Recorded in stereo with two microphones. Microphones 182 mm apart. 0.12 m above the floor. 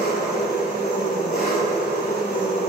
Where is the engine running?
55° left (ahead or behind), 0.7 m.